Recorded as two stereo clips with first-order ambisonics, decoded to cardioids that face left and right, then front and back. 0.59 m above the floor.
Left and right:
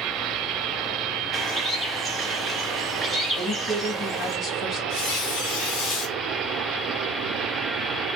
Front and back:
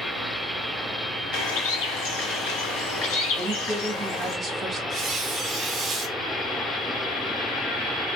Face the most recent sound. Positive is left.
turn(degrees=110)